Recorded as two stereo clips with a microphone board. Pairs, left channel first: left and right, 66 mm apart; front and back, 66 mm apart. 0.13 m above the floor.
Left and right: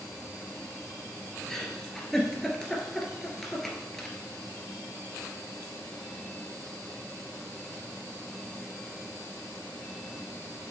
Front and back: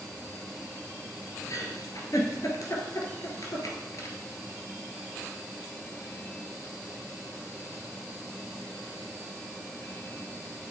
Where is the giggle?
5° left, 1.9 m.